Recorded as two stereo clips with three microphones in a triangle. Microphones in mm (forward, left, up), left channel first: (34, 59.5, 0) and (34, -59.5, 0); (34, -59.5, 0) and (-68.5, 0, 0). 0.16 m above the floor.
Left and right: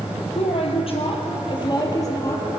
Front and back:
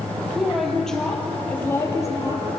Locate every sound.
0.3 s a woman speaking: 65° left, 5 m; by 2.5 s 25° left, 5 m